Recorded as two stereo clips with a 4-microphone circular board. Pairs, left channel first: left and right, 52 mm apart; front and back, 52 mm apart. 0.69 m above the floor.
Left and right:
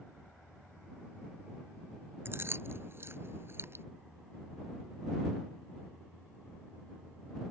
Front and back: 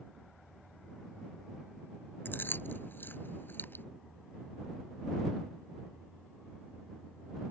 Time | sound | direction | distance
2.2 | chewing | 45° right | ?